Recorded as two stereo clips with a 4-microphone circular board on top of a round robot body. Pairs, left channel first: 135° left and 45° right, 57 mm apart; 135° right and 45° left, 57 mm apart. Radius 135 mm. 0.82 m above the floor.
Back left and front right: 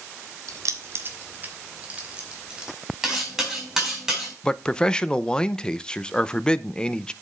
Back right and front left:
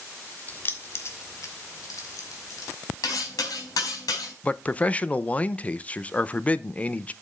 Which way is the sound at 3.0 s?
125° right.